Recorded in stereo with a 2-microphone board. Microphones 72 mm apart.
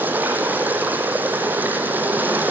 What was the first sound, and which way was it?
Running water, 25° right (ahead or behind).